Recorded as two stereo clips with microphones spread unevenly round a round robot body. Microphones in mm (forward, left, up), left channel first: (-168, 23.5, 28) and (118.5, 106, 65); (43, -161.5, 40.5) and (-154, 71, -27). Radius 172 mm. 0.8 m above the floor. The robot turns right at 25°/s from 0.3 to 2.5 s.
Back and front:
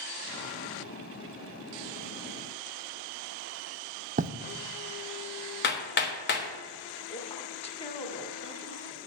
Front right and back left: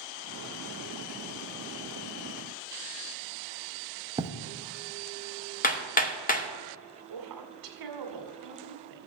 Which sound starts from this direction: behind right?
Hammering, at 5.6 s.